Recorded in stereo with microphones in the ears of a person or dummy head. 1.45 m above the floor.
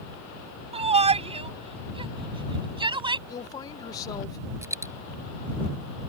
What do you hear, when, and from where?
0.7 s a shout: 30° right (ahead or behind); by 3.2 s 25° right (ahead or behind)
3.3 s a woman speaking: 20° left (ahead or behind)
4.6 s a dropped coin: 15° right (ahead or behind)